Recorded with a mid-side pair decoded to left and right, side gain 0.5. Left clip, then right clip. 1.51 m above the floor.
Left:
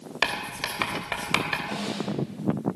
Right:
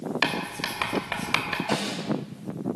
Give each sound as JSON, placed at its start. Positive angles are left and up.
{"t": 0.2, "sound": "writing", "azimuth_deg": 15, "distance_m": 3.5}
{"t": 1.7, "sound": "a snare drum", "azimuth_deg": -55, "distance_m": 5.5}